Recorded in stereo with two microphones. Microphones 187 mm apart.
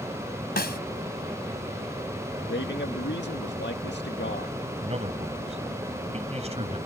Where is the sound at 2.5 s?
80° left.